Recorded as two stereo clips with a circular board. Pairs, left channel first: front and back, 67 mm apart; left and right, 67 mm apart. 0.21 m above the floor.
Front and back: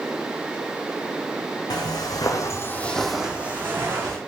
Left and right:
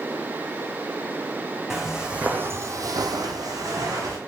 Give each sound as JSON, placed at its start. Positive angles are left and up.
{"t": 1.7, "sound": "footsteps", "azimuth_deg": -5, "distance_m": 0.8}